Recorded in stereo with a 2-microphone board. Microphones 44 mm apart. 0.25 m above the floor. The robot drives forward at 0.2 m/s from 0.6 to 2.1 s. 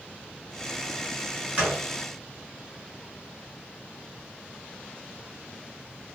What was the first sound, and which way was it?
A gunshot, 40° right (ahead or behind).